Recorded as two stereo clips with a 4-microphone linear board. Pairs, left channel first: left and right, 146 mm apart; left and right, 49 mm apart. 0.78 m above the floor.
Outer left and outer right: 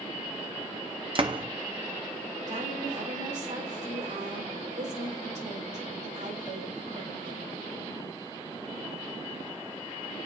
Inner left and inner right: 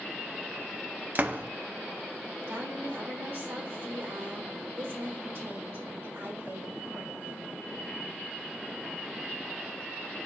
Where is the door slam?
40° right (ahead or behind), 0.6 m.